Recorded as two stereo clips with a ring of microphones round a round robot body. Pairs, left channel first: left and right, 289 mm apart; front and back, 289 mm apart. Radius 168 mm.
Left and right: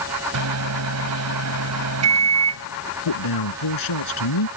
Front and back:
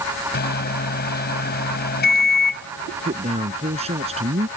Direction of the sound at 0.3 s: 55° right.